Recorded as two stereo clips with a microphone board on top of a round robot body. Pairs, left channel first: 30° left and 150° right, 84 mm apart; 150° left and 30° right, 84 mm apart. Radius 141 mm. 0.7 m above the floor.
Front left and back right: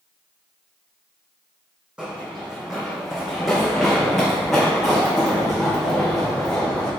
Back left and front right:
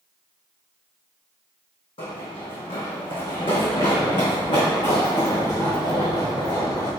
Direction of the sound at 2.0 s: 130° left.